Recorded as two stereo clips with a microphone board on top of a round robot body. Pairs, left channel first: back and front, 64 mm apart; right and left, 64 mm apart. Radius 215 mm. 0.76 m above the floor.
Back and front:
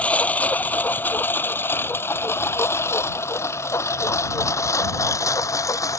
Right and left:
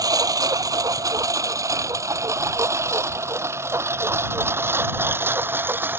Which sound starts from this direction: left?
A lawn mower, at 0.0 s.